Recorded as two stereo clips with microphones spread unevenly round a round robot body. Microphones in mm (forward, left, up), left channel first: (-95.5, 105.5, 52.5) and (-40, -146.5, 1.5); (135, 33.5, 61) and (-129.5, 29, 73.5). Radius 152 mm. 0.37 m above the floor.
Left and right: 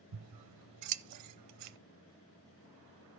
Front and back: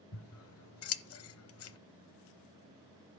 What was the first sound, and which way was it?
Scissors, 45° right.